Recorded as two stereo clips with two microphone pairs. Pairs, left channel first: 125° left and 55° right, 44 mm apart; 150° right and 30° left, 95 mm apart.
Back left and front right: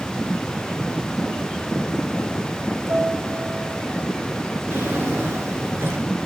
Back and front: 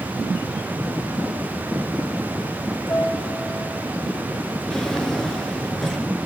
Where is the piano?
80° right, 9.5 m.